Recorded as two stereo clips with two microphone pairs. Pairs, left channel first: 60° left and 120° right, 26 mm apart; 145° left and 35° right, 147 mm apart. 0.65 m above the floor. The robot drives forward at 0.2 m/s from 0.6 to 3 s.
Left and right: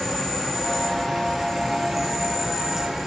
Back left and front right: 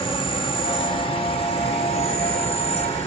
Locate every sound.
0.0 s an insect: 135° left, 1.5 m; by 3.1 s 150° left, 1.8 m